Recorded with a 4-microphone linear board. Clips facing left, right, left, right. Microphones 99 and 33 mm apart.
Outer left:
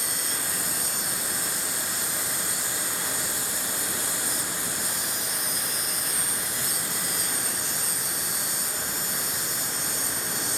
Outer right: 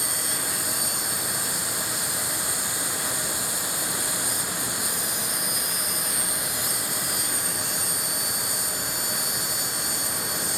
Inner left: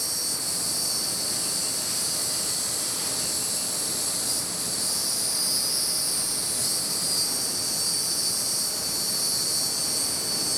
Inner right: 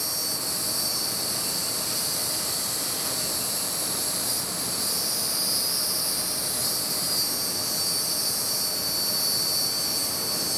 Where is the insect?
15° right (ahead or behind), 1.0 m.